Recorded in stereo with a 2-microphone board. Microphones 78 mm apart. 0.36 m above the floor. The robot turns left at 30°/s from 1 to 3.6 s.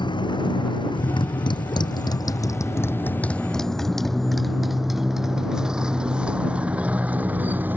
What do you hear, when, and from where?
0.0 s a motorcycle: 80° left; by 7.8 s 25° right (ahead or behind)